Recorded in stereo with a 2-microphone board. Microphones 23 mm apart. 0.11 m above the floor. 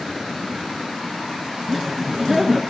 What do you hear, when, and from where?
1.7 s laughter: 5° right (ahead or behind), 1.1 m